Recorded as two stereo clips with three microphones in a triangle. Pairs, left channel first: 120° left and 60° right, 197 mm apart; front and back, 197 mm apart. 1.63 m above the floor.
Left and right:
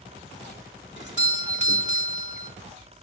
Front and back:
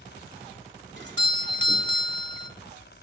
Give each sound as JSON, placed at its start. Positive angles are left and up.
{"t": 1.0, "sound": "a doorbell", "azimuth_deg": 150, "distance_m": 1.2}